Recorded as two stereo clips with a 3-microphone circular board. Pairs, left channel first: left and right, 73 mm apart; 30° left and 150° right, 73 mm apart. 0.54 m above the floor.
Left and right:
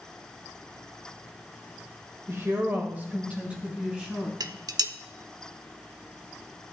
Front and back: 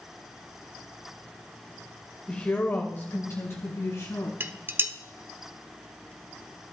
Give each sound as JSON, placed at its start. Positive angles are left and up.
{"t": 2.3, "sound": "a woman speaking", "azimuth_deg": -40, "distance_m": 1.7}
{"t": 4.4, "sound": "dishes clattering", "azimuth_deg": -95, "distance_m": 0.7}